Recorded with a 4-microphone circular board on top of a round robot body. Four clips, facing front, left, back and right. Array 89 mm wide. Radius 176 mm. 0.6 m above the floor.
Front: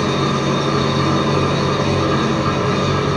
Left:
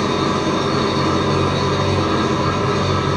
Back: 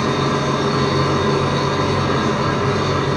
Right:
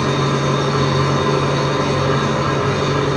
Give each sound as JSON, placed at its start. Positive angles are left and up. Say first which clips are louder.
{"t": 0.0, "sound": "an engine running", "louder": "even, even", "azimuth_deg": -125, "distance_m": 2.0}